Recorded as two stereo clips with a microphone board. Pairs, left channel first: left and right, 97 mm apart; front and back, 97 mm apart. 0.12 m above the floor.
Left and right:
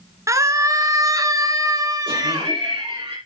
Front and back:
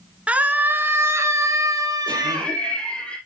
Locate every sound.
0.3 s a scream: 110° right, 1.9 m; by 2.5 s 135° right, 3.5 m
2.1 s laughter: 75° right, 4.5 m